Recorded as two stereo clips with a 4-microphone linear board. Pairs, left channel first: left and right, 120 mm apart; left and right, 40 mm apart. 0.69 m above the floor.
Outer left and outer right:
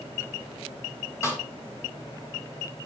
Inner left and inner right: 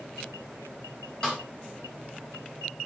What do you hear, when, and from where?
1.2 s a snare drum: 25° left (ahead or behind), 3.5 m